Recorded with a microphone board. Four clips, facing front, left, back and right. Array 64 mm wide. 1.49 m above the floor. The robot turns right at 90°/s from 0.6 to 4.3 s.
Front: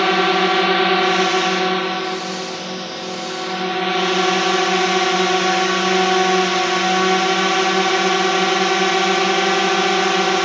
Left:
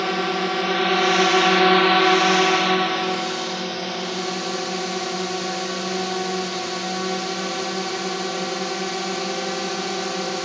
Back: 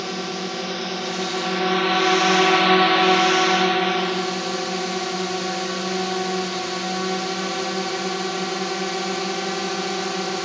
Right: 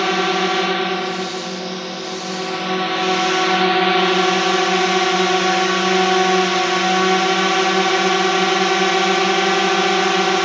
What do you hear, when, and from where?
0.0 s a drone: 20° right; by 10.4 s 45° right